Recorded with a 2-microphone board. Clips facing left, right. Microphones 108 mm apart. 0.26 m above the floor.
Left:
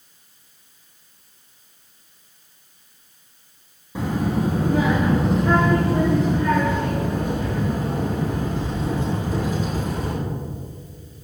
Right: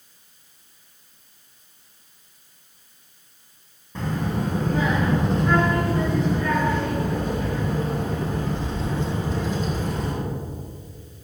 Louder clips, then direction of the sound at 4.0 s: Left 4 dB; 10° left (ahead or behind).